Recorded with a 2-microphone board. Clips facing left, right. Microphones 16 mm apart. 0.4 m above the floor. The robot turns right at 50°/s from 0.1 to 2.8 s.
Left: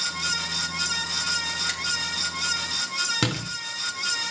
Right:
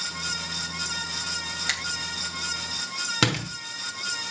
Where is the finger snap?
25° right (ahead or behind), 2.5 m; by 1.8 s 30° right (ahead or behind), 2.5 m.